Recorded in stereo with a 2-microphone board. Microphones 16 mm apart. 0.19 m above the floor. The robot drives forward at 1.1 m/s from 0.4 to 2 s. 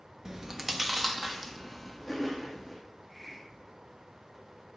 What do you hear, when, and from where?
0.2 s chewing: 35° right (ahead or behind), 0.5 m; by 2.8 s 10° right (ahead or behind), 2 m
2.9 s a hiss: 5° right (ahead or behind), 1.7 m